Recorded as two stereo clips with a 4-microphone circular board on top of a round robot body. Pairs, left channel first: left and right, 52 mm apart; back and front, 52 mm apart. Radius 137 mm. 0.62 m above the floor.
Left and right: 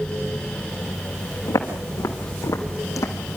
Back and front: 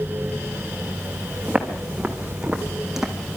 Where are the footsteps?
75° left, 3 m; by 3.4 s 90° left, 1.7 m.